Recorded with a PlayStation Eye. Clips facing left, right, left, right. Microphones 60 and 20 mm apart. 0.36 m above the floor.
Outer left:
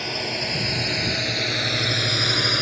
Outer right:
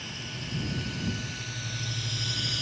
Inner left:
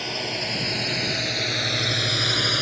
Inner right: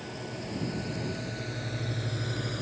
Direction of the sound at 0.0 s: 75° left (ahead or behind).